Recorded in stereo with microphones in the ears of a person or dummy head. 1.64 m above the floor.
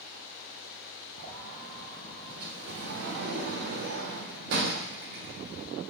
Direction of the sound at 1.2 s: 55° right (ahead or behind).